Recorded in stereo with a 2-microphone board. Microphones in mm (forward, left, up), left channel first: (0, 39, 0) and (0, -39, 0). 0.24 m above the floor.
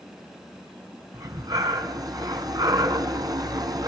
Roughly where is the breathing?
Right.